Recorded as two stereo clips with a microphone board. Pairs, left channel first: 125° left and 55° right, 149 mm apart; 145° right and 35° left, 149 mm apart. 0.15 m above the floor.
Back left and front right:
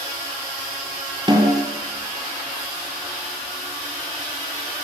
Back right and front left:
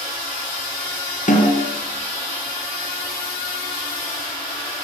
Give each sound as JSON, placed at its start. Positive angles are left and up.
{"t": 1.3, "sound": "a snare drum", "azimuth_deg": -115, "distance_m": 5.0}